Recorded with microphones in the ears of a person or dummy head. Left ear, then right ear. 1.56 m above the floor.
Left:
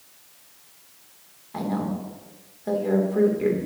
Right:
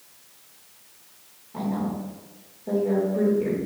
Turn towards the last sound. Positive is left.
turn(degrees=70)  # may be behind; listen again after turning